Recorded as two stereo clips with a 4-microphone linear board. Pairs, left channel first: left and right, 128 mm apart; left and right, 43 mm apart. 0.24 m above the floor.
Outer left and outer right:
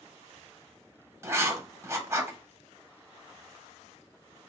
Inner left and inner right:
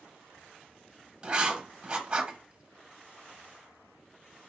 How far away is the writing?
About 1.0 m.